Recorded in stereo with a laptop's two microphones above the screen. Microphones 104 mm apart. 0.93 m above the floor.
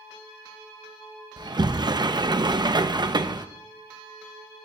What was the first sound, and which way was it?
A sliding door, 45° right (ahead or behind).